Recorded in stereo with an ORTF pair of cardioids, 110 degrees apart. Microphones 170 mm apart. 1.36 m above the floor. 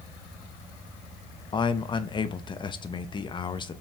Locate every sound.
1.5 s a man speaking: 30° left, 0.6 m